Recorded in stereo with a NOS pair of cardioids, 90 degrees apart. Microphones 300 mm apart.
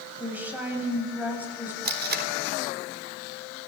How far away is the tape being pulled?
About 3.5 m.